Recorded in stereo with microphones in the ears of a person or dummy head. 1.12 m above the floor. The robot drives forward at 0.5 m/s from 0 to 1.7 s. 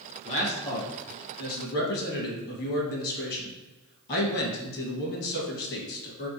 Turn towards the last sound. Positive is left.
turn(degrees=55)  # may be behind; listen again after turning